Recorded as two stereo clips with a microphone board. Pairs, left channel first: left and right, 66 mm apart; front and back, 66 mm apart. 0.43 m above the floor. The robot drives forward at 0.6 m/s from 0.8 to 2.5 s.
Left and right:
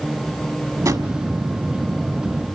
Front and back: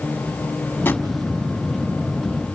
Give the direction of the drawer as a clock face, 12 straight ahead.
2 o'clock.